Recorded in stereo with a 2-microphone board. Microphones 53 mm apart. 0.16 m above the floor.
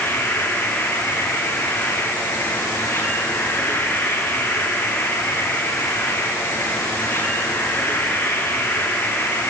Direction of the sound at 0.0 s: 40° left (ahead or behind).